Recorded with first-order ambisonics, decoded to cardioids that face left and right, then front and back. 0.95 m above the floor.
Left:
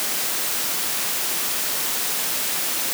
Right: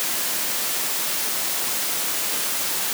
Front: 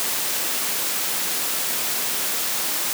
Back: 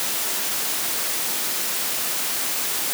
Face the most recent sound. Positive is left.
No sound to turn to.